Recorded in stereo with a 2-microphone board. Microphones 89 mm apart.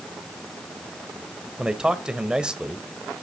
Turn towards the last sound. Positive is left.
turn(degrees=-10)  # may be behind; listen again after turning